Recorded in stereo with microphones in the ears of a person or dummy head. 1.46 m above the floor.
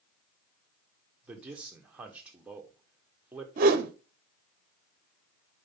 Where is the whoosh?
45° right (ahead or behind), 0.8 m.